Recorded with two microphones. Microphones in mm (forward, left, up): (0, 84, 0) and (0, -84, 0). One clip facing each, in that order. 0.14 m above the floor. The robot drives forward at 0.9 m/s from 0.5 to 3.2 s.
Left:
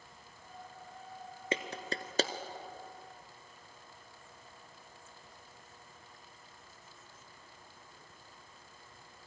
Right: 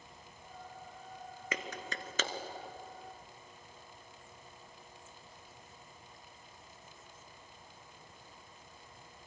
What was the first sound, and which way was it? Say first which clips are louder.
A clap: left 5 dB; 30° left (ahead or behind).